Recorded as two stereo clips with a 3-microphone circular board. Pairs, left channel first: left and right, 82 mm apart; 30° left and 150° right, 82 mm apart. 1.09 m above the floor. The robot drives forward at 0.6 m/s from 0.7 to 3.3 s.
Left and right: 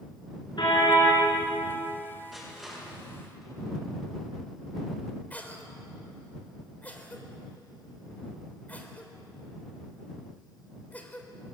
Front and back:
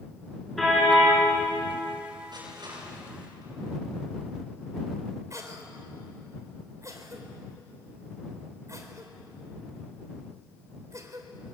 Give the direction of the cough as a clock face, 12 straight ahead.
7 o'clock.